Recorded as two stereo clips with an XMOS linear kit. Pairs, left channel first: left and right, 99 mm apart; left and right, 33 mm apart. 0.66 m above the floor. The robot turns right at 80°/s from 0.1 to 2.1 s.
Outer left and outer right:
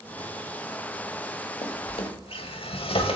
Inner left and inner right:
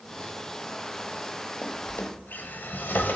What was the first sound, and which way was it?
A drawer, 65° left (ahead or behind).